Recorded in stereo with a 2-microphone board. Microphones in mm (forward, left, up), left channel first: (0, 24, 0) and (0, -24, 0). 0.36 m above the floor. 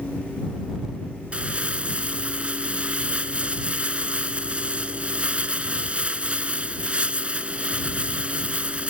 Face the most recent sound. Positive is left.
turn(degrees=-25)  # may be behind; listen again after turning